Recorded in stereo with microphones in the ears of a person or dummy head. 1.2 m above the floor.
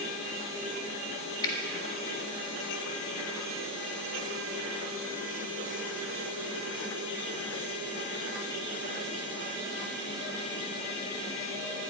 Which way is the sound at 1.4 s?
20° left (ahead or behind).